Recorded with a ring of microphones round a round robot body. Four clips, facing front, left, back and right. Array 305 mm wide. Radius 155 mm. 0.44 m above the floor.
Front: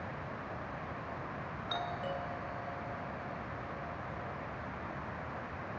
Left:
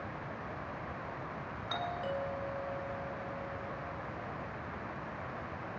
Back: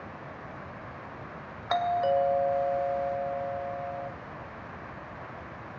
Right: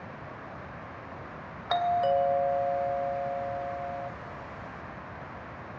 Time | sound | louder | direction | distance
1.7 | a doorbell | right 13 dB, back 14 dB | 140° right | 2.5 m